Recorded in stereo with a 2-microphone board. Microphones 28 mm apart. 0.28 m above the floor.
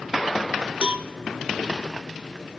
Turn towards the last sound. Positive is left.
turn(degrees=-50)  # may be behind; listen again after turning